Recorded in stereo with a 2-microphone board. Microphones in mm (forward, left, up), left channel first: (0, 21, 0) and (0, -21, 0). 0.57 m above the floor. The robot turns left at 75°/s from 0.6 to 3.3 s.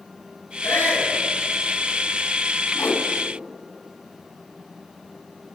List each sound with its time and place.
0.6 s a shout: 90° left, 9.5 m; by 1.1 s 50° left, 9.5 m
2.8 s a whoosh: 70° left (ahead or behind), 2 m; by 3.1 s 45° left (ahead or behind), 2 m